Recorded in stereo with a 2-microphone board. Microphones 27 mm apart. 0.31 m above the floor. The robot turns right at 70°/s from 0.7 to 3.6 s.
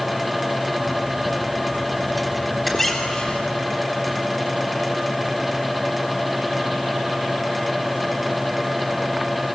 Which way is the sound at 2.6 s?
5° left.